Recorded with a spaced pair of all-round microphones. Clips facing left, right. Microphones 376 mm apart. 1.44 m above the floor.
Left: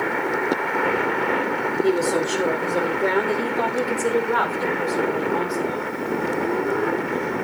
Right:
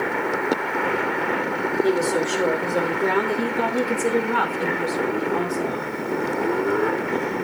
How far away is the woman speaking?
About 3.5 m.